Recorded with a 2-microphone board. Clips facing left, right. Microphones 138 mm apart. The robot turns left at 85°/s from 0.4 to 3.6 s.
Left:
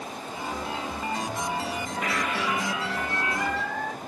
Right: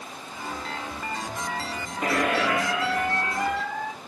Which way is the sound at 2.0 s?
35° right.